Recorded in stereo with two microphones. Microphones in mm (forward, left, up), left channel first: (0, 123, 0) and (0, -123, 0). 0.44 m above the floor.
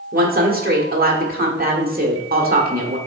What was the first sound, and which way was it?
A woman speaking, 35° right (ahead or behind).